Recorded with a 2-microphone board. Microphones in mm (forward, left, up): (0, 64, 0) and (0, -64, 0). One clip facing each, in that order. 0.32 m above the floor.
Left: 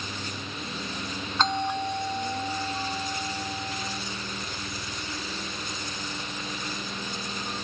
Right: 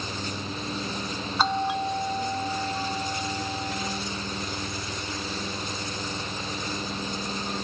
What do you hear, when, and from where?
1.4 s a doorbell: 10° right (ahead or behind)